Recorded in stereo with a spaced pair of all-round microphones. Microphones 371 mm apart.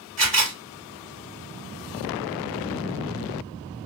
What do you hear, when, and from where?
0.2 s a camera shutter: 45° right (ahead or behind), 2.5 m